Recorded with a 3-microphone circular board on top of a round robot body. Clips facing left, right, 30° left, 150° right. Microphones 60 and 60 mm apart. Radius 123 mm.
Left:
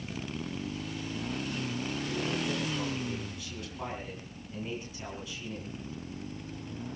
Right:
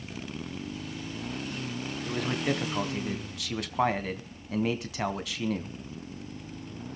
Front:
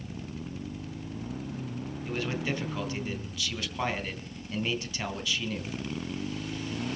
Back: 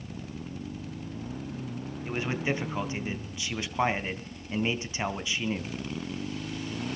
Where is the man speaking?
85° right, 3 m.